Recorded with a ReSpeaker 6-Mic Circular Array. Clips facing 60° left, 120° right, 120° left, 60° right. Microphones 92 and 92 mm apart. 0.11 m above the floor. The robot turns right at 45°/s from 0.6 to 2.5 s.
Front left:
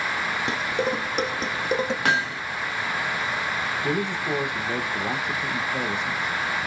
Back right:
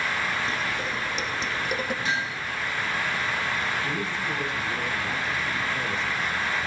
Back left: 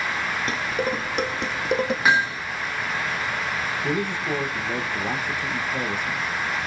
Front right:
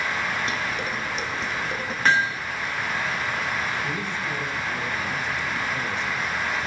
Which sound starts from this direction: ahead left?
Hammering, at 2.0 s.